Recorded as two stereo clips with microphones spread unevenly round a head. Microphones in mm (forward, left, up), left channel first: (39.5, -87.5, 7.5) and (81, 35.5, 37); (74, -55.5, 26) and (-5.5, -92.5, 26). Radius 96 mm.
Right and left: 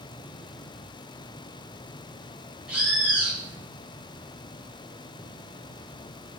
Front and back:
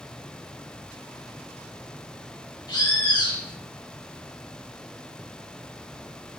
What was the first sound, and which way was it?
A bird, 10° right.